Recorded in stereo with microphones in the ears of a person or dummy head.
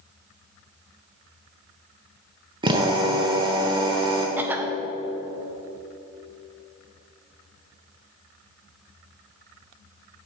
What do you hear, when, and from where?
2.6 s a drill: 25° right (ahead or behind), 0.9 m
4.4 s a cough: 10° right (ahead or behind), 0.5 m